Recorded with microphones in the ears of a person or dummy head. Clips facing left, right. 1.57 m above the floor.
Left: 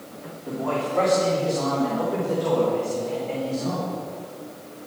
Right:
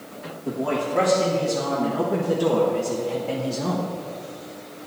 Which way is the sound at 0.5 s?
25° right (ahead or behind).